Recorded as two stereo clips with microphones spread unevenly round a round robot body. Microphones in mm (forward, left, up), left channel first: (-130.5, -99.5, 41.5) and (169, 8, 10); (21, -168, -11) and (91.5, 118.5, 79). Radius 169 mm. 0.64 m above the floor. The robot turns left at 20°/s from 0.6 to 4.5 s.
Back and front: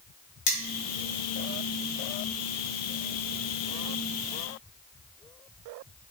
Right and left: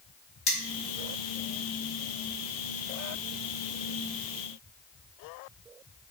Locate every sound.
0.5 s cutlery clinking: 175° right, 1.2 m